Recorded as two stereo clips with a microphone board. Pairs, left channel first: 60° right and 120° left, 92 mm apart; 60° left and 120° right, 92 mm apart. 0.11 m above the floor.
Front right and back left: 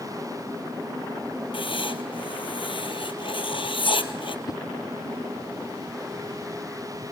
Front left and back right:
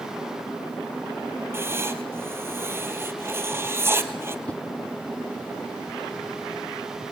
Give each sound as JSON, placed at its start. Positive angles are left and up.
{"t": 1.5, "sound": "writing", "azimuth_deg": -60, "distance_m": 1.3}
{"t": 4.5, "sound": "a whoosh", "azimuth_deg": -15, "distance_m": 0.9}